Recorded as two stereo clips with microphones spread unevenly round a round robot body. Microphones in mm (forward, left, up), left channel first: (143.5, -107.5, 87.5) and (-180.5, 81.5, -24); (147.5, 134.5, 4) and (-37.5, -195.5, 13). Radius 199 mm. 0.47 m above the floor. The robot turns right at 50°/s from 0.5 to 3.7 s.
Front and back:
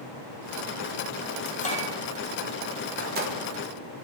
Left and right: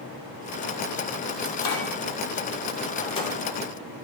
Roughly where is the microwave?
Ahead left.